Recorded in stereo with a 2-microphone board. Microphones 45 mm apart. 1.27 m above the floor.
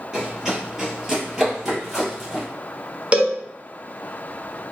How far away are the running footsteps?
About 1.4 m.